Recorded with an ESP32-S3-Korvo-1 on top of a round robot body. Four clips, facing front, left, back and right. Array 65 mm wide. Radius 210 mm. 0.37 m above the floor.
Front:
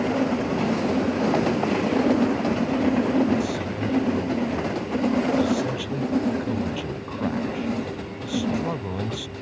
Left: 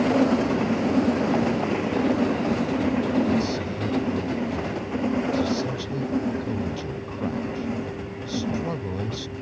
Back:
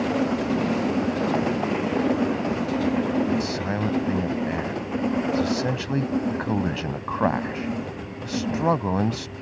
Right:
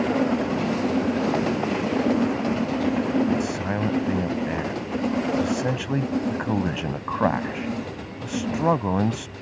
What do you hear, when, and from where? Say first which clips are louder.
3.4 s a man speaking: right 2 dB, even; 130° right